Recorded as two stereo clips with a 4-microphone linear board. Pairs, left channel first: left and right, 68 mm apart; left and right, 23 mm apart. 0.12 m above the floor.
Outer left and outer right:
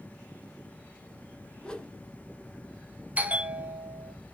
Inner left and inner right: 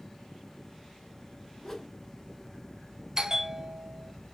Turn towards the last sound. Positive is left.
turn(degrees=-20)  # may be behind; listen again after turning